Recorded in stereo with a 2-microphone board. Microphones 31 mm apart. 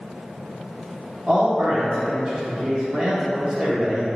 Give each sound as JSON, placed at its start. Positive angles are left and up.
{"t": 1.3, "sound": "a man speaking", "side_deg": -40, "distance_m": 0.7}